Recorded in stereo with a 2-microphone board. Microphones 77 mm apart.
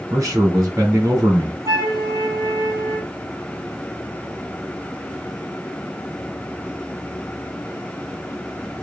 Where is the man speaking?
45° right (ahead or behind), 2.5 m.